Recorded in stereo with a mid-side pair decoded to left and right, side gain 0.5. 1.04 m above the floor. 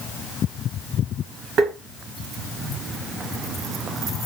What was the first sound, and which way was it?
Tapping, 65° right.